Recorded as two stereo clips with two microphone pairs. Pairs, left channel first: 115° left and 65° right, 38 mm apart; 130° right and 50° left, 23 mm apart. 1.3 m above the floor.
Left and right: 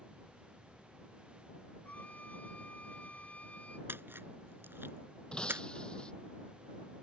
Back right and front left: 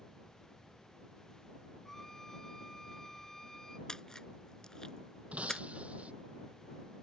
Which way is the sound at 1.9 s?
160° left.